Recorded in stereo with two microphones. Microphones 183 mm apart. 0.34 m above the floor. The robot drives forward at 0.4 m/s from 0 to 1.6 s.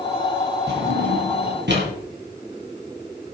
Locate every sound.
0.7 s a drawer: 70° right (ahead or behind), 4.5 m; by 1.9 s 75° right (ahead or behind), 4.5 m